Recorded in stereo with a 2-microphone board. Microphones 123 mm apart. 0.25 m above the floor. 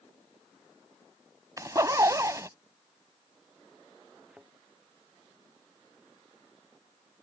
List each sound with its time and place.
1.6 s a zipper: 25° right (ahead or behind)
4.3 s a thud: 5° right (ahead or behind)